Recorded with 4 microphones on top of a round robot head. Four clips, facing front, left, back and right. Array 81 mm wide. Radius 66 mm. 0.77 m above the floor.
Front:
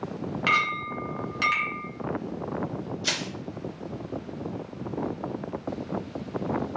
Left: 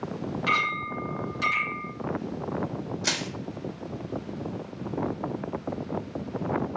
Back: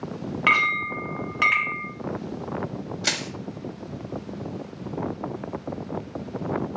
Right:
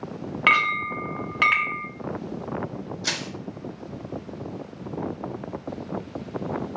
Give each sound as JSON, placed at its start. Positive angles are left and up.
{"t": 0.5, "sound": "a clink", "azimuth_deg": -120, "distance_m": 0.8}
{"t": 3.0, "sound": "crushing", "azimuth_deg": 170, "distance_m": 1.7}